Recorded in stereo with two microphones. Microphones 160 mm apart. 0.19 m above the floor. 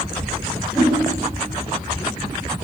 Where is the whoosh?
Centre (ahead or behind), 2.5 m.